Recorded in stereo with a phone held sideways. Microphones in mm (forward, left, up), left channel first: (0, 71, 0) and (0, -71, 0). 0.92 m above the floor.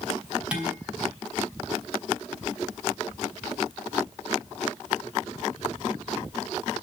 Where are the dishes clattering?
10° right (ahead or behind), 5.5 m.